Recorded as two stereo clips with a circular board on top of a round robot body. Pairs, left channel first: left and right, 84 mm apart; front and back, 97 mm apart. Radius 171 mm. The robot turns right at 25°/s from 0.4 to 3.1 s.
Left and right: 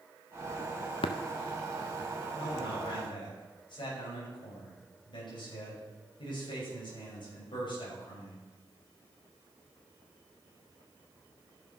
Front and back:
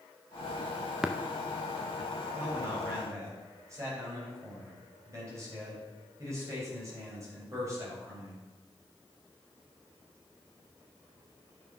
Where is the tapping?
95° left, 0.5 m; by 1.1 s 100° left, 0.5 m.